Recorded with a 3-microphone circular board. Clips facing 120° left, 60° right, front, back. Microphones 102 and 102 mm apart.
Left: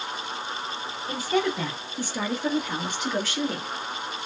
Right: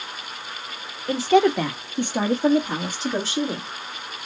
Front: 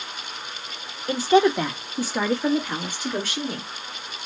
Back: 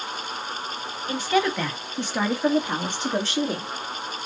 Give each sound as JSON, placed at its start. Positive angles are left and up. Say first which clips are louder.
{"t": 1.1, "sound": "a woman speaking", "louder": "right 8 dB, front 5 dB", "azimuth_deg": -55, "distance_m": 1.2}